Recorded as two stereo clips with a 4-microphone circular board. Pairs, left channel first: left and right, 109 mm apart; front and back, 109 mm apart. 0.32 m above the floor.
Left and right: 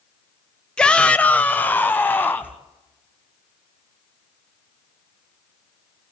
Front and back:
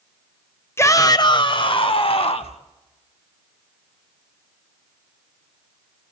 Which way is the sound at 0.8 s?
20° left.